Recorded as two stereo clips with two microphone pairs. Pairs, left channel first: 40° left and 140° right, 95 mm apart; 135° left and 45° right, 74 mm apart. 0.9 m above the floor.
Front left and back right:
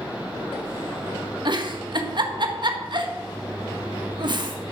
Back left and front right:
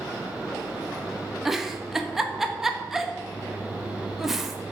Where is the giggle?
130° right, 1.4 m.